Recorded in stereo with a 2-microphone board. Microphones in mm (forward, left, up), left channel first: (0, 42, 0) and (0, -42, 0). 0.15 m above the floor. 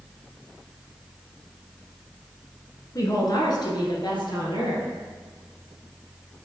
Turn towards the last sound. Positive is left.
turn(degrees=65)  # may be behind; listen again after turning